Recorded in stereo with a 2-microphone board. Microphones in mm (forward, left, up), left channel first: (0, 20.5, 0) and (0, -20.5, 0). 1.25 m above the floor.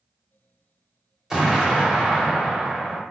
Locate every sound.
1.3 s an explosion: 10° right (ahead or behind), 1.0 m